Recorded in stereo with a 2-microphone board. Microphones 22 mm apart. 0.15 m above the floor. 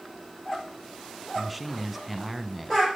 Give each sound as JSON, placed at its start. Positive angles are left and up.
{"t": 1.4, "sound": "a man speaking", "side_deg": -5, "distance_m": 1.2}